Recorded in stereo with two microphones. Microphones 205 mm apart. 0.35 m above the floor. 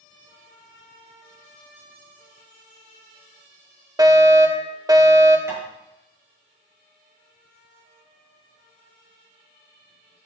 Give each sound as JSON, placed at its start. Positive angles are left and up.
{"t": 4.0, "sound": "a fire alarm", "side_deg": -20, "distance_m": 1.8}
{"t": 5.5, "sound": "tapping", "side_deg": -15, "distance_m": 5.0}